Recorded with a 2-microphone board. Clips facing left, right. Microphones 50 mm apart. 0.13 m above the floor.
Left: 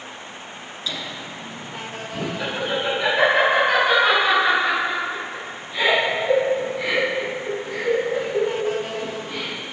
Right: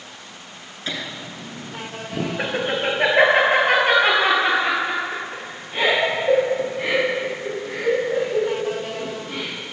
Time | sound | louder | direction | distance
0.9 | laughter | right 2 dB | 45° right (ahead or behind) | 1.5 m